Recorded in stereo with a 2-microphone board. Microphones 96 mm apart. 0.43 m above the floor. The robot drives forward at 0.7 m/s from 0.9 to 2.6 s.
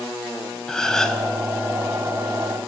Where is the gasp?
5° left (ahead or behind), 1.1 m.